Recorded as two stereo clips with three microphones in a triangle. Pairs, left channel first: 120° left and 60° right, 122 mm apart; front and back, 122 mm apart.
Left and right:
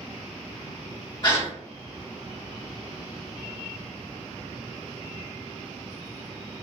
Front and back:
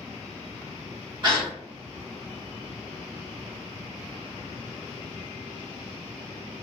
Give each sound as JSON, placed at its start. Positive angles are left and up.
{"t": 1.2, "sound": "a gasp", "azimuth_deg": 150, "distance_m": 1.7}